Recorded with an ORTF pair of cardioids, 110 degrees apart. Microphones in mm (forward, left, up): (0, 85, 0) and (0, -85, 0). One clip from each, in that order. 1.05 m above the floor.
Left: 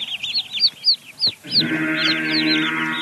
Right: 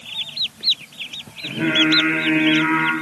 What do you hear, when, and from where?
1.4 s singing: 40° right, 2 m